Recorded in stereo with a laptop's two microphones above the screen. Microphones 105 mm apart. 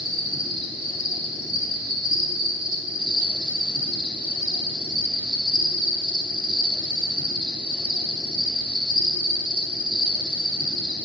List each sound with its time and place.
0.0 s an insect: 45° right (ahead or behind), 0.9 m